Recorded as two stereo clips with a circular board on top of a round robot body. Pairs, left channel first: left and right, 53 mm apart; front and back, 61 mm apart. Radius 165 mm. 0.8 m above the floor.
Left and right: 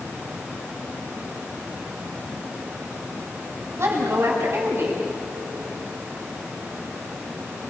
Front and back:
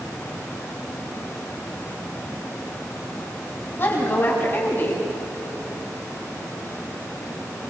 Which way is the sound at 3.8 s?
55° right.